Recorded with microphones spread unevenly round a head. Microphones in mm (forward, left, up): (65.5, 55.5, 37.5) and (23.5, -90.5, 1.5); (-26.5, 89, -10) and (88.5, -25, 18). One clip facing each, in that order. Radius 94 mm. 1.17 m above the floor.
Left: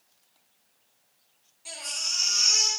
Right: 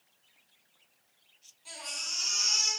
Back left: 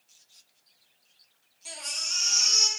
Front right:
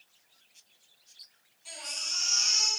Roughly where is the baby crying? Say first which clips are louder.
Left 3 dB, back left 2 dB; behind left.